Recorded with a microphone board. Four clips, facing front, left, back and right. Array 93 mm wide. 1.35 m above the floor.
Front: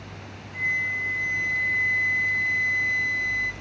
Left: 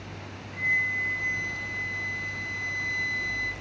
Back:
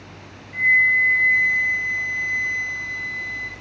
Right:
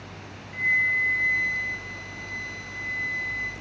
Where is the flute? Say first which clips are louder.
Right 4 dB, back 10 dB; 150° right, 0.6 m.